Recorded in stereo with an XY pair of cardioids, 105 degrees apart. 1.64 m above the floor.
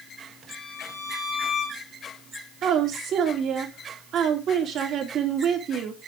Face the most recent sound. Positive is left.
turn(degrees=-65)